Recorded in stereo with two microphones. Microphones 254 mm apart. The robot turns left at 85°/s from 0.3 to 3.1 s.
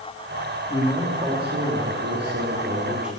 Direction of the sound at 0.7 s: 25° left.